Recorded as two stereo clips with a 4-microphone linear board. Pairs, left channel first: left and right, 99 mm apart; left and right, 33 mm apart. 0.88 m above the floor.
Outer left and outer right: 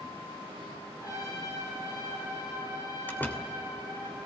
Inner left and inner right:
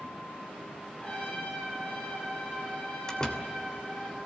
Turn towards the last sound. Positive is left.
turn(degrees=20)  # may be behind; listen again after turning